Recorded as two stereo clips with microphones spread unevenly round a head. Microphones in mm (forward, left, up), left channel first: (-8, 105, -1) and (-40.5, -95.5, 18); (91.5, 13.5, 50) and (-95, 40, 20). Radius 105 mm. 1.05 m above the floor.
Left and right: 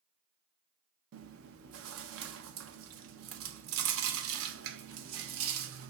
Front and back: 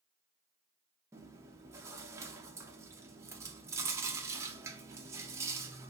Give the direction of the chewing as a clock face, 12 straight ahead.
4 o'clock.